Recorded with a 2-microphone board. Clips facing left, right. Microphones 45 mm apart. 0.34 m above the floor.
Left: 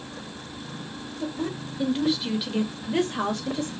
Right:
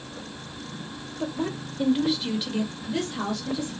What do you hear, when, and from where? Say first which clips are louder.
1.2 s a woman speaking: right 1 dB; 30° right (ahead or behind), 1.3 m; by 3.7 s 40° left (ahead or behind), 1.6 m